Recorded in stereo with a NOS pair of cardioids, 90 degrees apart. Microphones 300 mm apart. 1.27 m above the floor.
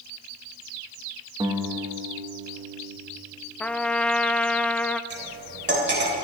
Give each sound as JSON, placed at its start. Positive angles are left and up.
{"t": 1.4, "sound": "a guitar", "azimuth_deg": -15, "distance_m": 1.6}
{"t": 3.6, "sound": "a trumpet", "azimuth_deg": 5, "distance_m": 0.6}
{"t": 5.1, "sound": "cutlery clinking", "azimuth_deg": -35, "distance_m": 3.5}